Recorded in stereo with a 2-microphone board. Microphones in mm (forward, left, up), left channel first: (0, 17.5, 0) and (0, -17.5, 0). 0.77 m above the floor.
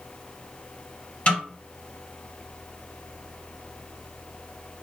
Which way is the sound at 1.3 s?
40° left (ahead or behind).